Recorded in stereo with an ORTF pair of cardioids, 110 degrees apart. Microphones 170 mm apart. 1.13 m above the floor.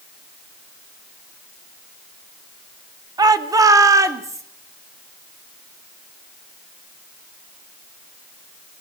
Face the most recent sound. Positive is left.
turn(degrees=-15)